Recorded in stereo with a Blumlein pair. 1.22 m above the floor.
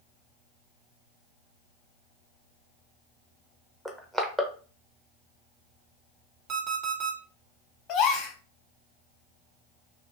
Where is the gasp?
35° left, 0.7 m.